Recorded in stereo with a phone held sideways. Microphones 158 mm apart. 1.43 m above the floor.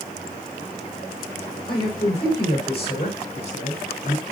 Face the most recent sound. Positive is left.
turn(degrees=55)  # may be behind; listen again after turning